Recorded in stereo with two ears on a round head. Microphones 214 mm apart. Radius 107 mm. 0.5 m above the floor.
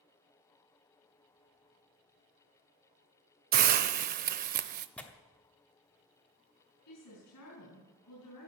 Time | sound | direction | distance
3.5 | a hiss | 40° right (ahead or behind) | 0.5 m
5.0 | tearing paper | 5° left (ahead or behind) | 1.1 m
6.9 | a woman speaking | 75° left (ahead or behind) | 4.5 m